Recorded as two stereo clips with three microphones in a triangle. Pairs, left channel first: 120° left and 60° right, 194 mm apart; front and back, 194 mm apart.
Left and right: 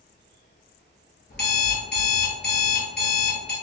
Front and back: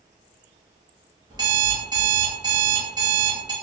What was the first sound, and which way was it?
An alarm clock, 115° left.